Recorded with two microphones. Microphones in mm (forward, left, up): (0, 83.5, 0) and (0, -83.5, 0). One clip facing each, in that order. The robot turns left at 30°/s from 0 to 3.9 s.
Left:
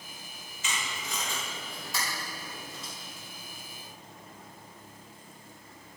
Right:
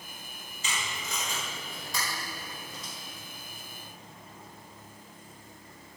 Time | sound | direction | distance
0.6 | tape being pulled | 40° right (ahead or behind) | 4.5 m